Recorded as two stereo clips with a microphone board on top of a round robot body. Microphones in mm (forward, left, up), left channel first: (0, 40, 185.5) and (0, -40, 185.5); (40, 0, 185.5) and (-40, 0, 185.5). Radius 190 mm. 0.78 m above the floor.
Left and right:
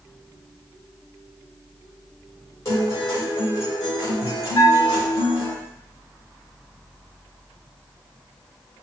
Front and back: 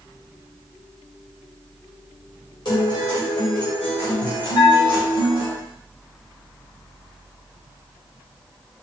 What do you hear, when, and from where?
2.6 s a guitar: 35° left, 2.0 m
4.5 s a bell: 35° left, 1.2 m